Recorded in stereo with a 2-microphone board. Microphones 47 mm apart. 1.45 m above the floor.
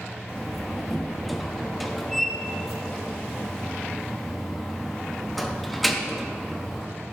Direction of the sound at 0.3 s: 5° left (ahead or behind).